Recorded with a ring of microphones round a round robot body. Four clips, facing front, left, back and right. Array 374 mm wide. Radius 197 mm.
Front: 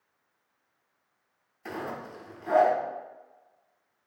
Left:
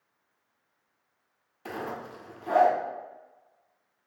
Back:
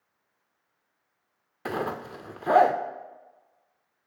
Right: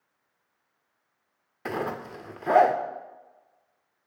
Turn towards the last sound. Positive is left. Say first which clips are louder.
# right 5 dB, back 5 dB
turn(degrees=-145)